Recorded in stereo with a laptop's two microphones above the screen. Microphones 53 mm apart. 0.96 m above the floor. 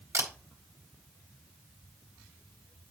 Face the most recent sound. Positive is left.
turn(degrees=-85)